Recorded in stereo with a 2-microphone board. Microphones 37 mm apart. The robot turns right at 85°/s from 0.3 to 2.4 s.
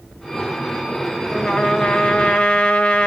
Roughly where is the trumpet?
Centre.